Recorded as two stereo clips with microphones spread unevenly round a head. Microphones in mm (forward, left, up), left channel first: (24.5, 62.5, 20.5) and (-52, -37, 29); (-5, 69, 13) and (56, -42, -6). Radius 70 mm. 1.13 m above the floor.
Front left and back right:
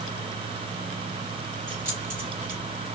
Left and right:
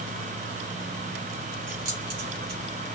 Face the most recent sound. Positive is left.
turn(degrees=-55)